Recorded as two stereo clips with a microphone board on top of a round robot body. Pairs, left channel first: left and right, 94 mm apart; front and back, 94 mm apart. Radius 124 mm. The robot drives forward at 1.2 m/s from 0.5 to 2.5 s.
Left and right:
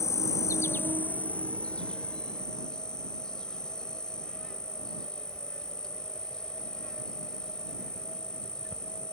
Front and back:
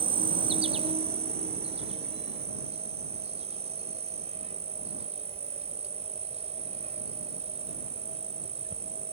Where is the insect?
150° left; by 9.1 s 175° left.